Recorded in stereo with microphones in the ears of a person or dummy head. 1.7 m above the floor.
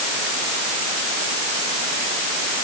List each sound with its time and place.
Only background noise.